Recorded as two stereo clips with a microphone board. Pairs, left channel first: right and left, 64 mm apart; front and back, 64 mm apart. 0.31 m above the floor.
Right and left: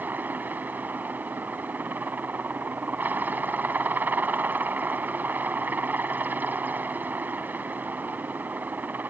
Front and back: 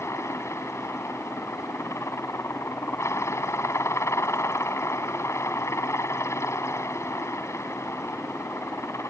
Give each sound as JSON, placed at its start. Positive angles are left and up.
{"t": 0.0, "sound": "a helicopter", "azimuth_deg": 30}